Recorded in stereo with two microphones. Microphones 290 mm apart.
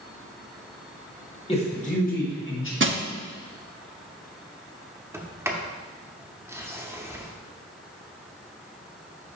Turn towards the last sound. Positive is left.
turn(degrees=-10)  # may be behind; listen again after turning